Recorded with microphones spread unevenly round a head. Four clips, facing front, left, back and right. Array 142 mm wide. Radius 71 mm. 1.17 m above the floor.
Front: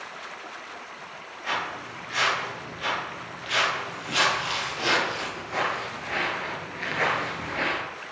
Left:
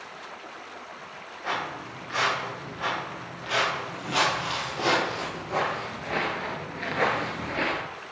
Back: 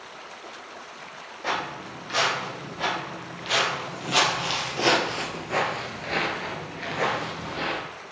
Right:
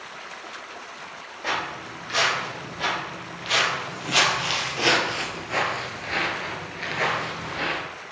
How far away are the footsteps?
About 3.5 m.